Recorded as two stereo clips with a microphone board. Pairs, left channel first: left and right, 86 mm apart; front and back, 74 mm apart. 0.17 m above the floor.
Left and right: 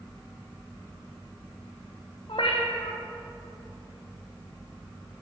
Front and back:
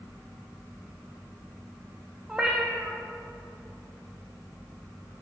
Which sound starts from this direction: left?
A cat meowing, at 2.3 s.